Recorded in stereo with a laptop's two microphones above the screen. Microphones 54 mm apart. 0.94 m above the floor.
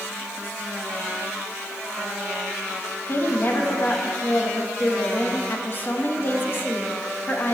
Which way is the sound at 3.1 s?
40° left (ahead or behind).